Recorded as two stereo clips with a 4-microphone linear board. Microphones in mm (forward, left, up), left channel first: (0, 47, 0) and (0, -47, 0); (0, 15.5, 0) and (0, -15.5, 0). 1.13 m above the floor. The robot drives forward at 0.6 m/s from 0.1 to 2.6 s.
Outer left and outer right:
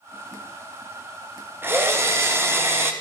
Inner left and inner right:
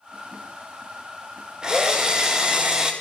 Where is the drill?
25° right (ahead or behind), 0.8 m.